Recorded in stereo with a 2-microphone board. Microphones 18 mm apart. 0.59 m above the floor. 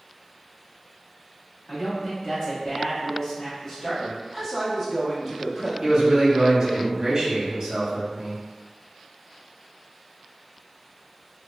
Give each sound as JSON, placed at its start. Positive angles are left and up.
{"t": 1.7, "sound": "a man speaking", "side_deg": 35, "distance_m": 1.4}
{"t": 4.3, "sound": "a man speaking", "side_deg": 10, "distance_m": 0.7}
{"t": 5.8, "sound": "a man speaking", "side_deg": -40, "distance_m": 0.8}